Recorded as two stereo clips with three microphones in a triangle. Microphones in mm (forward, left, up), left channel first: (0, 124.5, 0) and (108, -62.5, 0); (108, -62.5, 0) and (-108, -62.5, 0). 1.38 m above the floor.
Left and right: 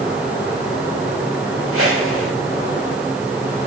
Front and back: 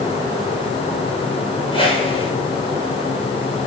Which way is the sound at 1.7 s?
65° right.